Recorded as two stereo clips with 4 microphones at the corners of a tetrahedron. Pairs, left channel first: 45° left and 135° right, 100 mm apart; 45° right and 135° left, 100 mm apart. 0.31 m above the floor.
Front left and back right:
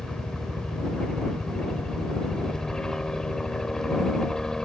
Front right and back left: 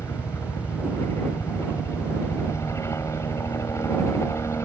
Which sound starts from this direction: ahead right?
A helicopter, at 0.0 s.